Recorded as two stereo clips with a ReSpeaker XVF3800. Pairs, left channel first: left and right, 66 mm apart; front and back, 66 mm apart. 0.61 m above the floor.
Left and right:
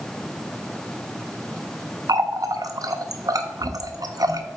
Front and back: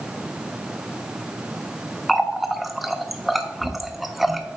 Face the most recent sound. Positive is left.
turn(degrees=-95)